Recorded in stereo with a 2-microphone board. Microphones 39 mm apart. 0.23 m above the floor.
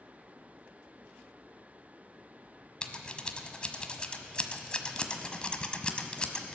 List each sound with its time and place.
2.8 s scissors: 25° left (ahead or behind), 1.2 m